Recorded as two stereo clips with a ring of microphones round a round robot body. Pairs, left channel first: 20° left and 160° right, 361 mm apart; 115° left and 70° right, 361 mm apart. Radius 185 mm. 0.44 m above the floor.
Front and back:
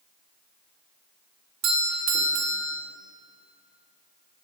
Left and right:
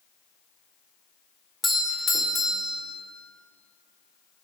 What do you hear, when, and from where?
1.6 s a doorbell: 160° right, 2 m